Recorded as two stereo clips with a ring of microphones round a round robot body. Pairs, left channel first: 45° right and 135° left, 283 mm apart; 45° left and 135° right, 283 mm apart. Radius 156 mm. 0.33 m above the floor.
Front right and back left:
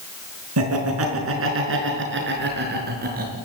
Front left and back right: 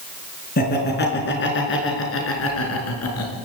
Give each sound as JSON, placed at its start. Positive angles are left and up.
{"t": 0.6, "sound": "laughter", "azimuth_deg": 100, "distance_m": 5.0}